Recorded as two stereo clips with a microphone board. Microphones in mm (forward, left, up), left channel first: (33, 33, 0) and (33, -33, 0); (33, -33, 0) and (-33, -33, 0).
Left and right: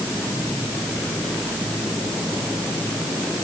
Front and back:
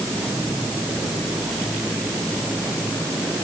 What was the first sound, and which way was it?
Only background noise.